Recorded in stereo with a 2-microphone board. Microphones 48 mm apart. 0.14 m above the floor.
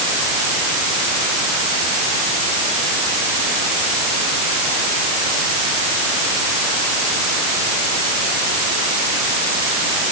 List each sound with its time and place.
Only background noise.